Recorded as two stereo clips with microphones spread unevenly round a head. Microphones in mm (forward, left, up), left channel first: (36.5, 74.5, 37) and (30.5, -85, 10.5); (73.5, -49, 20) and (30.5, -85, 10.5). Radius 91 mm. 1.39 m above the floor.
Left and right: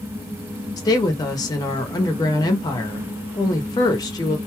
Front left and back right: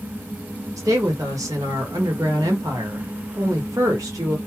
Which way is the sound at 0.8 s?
160° left.